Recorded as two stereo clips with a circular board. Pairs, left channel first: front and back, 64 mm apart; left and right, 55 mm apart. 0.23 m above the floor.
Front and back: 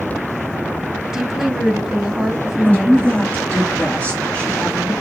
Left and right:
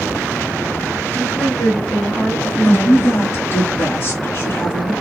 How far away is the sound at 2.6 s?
About 3 m.